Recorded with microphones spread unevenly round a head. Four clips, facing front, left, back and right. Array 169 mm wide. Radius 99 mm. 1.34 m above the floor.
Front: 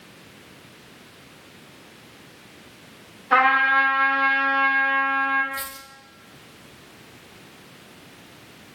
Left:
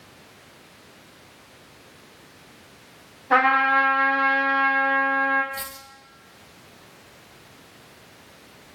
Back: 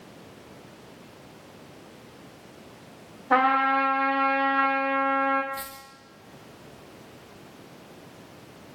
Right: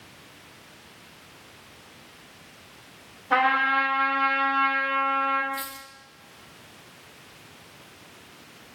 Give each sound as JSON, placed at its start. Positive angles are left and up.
{"t": 3.3, "sound": "a trumpet", "azimuth_deg": 150, "distance_m": 3.0}
{"t": 5.5, "sound": "a dropped coin", "azimuth_deg": 115, "distance_m": 4.0}